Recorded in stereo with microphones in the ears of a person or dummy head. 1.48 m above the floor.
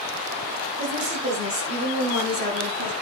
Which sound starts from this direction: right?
A woman speaking, at 0.8 s.